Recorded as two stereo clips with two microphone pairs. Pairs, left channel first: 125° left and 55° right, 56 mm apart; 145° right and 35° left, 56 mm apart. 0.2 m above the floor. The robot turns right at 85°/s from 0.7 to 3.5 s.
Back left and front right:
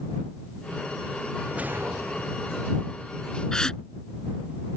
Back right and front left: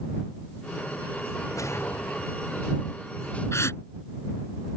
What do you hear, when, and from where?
1.5 s a whoosh: 125° right; by 2.4 s 45° right
3.5 s a gasp: 160° right